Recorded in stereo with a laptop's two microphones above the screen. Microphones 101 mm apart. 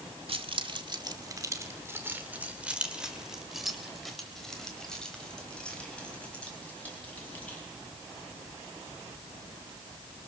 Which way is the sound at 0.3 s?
60° right (ahead or behind).